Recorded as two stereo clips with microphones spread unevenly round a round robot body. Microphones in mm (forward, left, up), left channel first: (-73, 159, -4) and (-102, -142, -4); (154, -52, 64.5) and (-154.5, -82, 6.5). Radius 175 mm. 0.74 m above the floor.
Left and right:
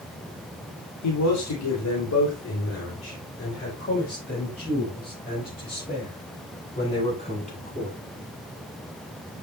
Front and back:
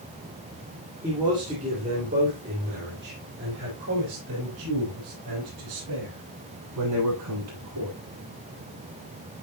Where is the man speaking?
110° left, 2.5 m; by 8.0 s 150° left, 8 m.